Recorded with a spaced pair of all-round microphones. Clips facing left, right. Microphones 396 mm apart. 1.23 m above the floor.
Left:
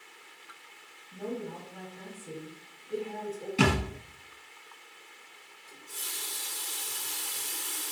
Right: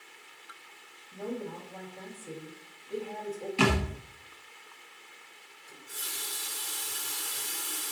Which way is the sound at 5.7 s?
15° left (ahead or behind).